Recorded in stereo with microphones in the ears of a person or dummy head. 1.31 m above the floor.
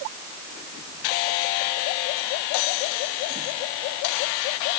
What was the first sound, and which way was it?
Only background noise.